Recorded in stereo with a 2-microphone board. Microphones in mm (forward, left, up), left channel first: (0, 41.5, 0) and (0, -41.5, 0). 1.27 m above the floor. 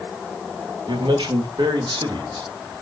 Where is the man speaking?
80° right, 2.5 m.